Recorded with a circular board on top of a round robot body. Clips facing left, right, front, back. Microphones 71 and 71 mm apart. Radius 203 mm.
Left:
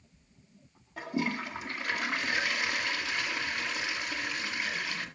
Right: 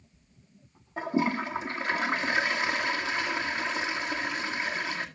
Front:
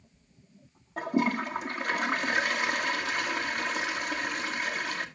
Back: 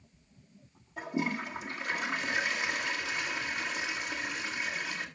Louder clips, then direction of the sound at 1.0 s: Right 5 dB, front 6 dB; 30° right.